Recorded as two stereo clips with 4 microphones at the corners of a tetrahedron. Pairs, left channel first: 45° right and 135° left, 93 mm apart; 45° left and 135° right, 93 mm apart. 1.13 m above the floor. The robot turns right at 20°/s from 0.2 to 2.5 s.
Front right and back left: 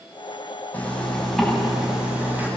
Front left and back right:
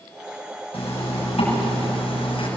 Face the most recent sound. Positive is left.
turn(degrees=65)